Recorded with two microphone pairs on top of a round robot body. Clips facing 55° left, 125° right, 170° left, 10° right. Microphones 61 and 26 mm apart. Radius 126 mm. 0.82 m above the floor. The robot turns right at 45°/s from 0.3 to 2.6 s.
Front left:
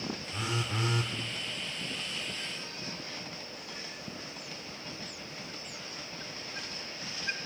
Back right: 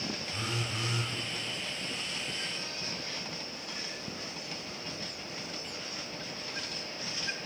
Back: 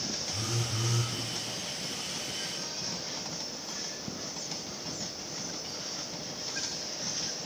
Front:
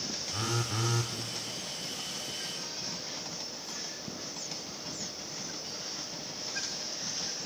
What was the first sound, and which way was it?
A phone buzzing, 20° right.